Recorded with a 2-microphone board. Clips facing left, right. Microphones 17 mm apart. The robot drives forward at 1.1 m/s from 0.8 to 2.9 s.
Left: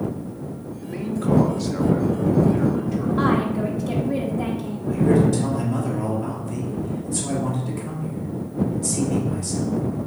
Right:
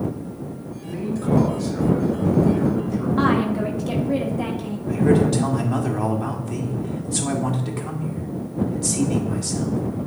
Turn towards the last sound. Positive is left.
turn(degrees=-65)  # may be behind; listen again after turning